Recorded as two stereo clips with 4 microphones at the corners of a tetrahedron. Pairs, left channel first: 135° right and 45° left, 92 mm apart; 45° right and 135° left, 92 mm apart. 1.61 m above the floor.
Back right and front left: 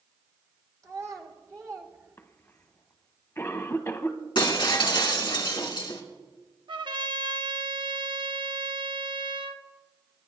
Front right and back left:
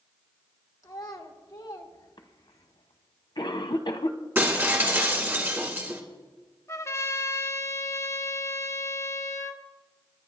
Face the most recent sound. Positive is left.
turn(degrees=15)